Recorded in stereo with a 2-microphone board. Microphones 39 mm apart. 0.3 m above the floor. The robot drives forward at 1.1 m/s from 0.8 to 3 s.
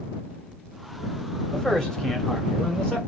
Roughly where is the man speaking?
Centre.